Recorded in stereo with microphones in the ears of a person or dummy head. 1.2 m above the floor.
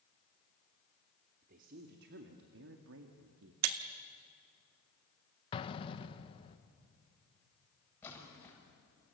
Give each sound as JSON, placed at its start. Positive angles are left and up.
{"t": 1.4, "sound": "a woman speaking", "side_deg": -50, "distance_m": 2.5}
{"t": 3.6, "sound": "breaking glass", "side_deg": -60, "distance_m": 1.2}
{"t": 5.5, "sound": "an explosion", "side_deg": 25, "distance_m": 1.2}
{"t": 8.0, "sound": "a splash", "side_deg": 10, "distance_m": 8.0}